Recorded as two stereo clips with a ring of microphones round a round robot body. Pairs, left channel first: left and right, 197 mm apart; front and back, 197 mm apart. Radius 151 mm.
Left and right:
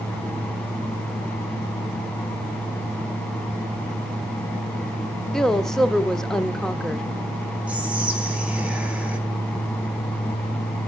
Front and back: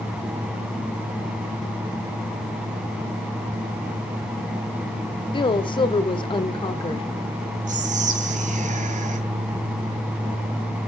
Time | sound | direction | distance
5.3 | a woman speaking | 5° left | 1.2 m
7.7 | whispering | 170° right | 1.0 m